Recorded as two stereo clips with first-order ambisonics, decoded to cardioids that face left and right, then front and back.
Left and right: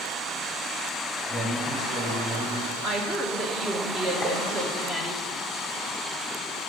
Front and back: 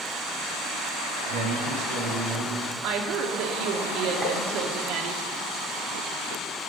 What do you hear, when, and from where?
1.3 s a man speaking: straight behind, 2.5 m
2.8 s a woman speaking: 155° right, 1.6 m
4.2 s tapping: 130° left, 1.7 m